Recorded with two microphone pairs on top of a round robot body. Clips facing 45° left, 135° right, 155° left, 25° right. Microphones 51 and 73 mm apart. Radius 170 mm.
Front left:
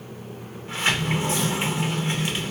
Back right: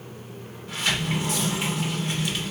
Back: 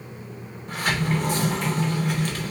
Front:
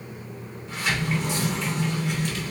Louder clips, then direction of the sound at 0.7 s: Front left 2 dB, back 2 dB; 110° left.